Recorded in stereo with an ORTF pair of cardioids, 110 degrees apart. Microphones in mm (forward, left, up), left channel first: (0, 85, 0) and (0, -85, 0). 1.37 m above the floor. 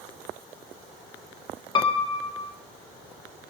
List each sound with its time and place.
1.8 s a piano: 25° left, 2 m